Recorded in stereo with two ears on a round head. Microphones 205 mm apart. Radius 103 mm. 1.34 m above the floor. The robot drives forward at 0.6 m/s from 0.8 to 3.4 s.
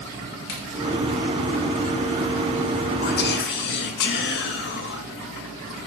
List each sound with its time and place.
0.5 s a crack: 50° left (ahead or behind), 2 m
3.0 s whispering: 45° left (ahead or behind), 0.8 m; by 5.9 s 50° left (ahead or behind), 0.7 m